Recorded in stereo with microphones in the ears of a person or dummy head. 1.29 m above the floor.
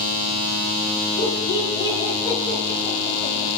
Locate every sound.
1.2 s laughter: 25° left (ahead or behind), 5.5 m